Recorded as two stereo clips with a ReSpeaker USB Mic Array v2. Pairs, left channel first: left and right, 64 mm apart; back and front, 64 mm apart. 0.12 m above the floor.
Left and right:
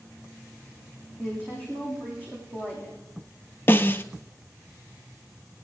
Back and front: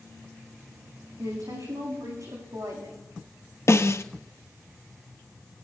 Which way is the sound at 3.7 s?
145° left.